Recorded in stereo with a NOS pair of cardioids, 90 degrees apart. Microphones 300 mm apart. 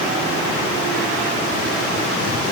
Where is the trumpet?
No trumpet in this recording.